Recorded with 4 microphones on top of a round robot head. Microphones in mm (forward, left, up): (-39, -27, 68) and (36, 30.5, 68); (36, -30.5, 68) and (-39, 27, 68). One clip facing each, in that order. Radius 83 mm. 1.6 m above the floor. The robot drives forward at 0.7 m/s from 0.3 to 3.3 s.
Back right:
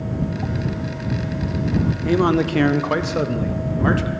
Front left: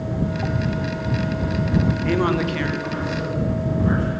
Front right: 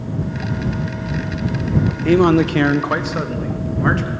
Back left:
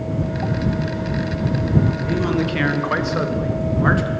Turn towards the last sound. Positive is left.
turn(degrees=-135)